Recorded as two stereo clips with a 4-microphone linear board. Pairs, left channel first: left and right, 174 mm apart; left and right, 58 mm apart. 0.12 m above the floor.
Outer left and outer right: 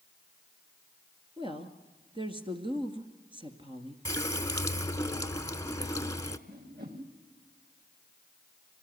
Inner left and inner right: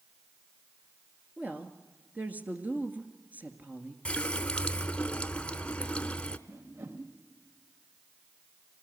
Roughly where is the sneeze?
No sneeze in this recording.